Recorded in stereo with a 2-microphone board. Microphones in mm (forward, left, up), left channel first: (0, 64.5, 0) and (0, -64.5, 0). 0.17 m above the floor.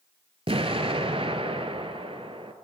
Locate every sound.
0.5 s an explosion: 50° right (ahead or behind), 0.6 m